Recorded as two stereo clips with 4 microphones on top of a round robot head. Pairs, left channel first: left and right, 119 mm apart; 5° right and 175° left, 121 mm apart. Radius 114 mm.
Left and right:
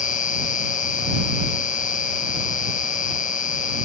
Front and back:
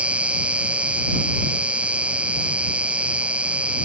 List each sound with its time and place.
0.0 s an insect: 95° left